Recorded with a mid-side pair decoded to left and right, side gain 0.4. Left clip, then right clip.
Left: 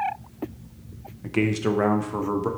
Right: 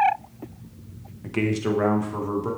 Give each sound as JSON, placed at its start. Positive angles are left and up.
{"t": 1.2, "sound": "a man speaking", "azimuth_deg": 10, "distance_m": 1.0}